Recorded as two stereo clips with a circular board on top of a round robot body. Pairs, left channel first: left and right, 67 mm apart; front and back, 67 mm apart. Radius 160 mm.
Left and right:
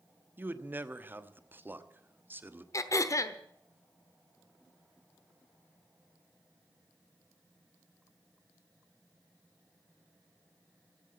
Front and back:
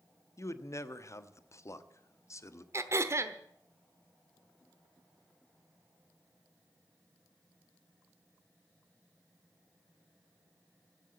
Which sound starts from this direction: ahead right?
A man speaking, at 0.4 s.